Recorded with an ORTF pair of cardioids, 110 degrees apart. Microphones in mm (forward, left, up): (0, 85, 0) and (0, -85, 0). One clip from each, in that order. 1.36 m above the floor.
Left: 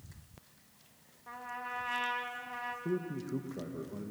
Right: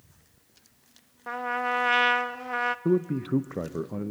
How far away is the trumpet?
About 0.8 m.